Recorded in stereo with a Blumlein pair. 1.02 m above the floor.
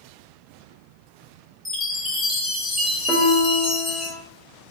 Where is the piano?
10° right, 1.0 m.